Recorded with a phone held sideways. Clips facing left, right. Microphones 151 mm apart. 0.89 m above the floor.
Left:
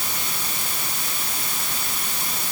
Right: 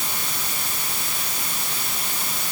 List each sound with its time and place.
Only background noise.